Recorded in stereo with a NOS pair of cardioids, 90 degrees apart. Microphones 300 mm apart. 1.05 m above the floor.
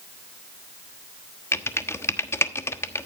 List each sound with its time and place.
1.5 s typing on a keyboard: 10° left, 1.2 m